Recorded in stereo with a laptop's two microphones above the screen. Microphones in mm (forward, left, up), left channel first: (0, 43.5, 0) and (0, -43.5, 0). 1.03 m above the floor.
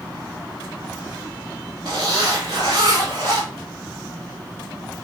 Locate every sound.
1.9 s a zipper: 65° right (ahead or behind), 2 m